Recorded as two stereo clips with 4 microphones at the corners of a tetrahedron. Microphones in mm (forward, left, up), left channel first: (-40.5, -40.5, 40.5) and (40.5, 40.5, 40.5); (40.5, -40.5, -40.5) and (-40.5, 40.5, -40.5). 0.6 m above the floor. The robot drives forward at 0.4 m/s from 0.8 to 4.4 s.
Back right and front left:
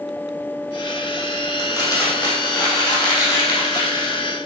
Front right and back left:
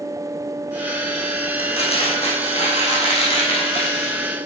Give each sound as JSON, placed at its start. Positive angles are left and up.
{"t": 1.6, "sound": "crumpling", "azimuth_deg": -75, "distance_m": 4.5}